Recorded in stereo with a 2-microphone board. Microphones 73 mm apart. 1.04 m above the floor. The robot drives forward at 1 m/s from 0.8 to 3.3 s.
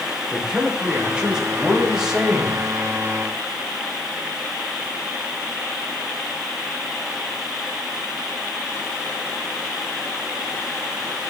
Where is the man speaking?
10° right (ahead or behind), 3 m; by 2.7 s 5° right (ahead or behind), 4.5 m.